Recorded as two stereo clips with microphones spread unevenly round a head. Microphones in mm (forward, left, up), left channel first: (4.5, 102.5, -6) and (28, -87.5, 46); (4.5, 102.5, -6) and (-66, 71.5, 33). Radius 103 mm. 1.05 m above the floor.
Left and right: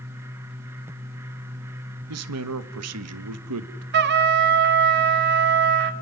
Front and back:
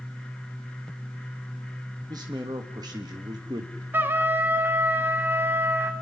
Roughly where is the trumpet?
Ahead right.